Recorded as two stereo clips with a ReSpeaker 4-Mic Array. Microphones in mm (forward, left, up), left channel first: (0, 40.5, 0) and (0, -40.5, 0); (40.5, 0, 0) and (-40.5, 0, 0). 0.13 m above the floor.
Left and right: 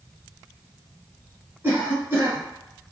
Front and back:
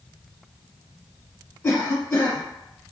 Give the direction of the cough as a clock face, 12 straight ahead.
2 o'clock.